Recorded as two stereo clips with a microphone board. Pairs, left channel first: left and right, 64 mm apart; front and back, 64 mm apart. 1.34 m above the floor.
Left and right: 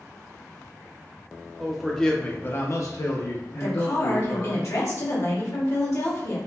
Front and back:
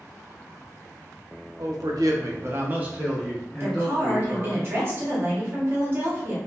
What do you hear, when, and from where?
1.6 s a man speaking: 175° right, 0.7 m; by 4.6 s 70° left, 1.3 m
3.6 s a woman speaking: 130° left, 0.9 m